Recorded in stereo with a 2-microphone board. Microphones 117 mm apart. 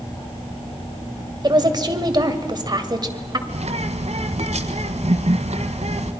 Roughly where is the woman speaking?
Right.